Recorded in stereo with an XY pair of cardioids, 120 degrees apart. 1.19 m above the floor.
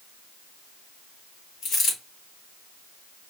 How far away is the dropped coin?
About 3.5 m.